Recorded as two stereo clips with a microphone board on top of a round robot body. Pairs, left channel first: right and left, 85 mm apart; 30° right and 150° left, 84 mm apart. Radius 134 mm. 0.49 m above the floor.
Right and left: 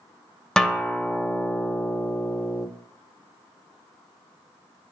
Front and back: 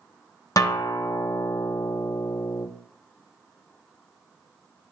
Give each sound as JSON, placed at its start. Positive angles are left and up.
{"t": 0.6, "sound": "a guitar", "azimuth_deg": -10, "distance_m": 0.9}